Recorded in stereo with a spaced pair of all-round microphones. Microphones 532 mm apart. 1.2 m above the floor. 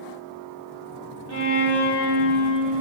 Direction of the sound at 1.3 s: 30° right (ahead or behind).